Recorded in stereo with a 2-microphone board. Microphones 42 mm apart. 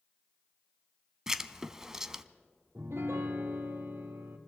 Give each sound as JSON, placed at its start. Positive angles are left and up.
{"t": 1.3, "sound": "writing", "side_deg": -15, "distance_m": 0.5}
{"t": 2.8, "sound": "a piano", "side_deg": -80, "distance_m": 1.3}